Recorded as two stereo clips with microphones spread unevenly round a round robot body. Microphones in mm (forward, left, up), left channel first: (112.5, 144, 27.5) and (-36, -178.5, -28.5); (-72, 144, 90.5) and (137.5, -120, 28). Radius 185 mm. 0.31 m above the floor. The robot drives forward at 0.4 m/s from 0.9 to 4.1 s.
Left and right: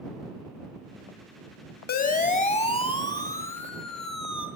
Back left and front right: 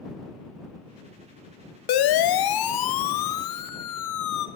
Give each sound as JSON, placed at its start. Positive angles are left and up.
{"t": 1.9, "sound": "a siren", "azimuth_deg": 135, "distance_m": 2.5}